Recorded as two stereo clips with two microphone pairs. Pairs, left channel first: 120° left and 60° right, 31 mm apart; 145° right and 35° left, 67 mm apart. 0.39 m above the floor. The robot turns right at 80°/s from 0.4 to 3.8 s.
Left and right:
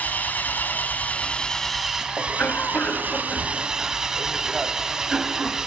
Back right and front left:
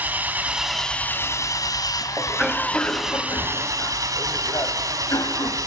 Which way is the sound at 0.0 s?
100° left.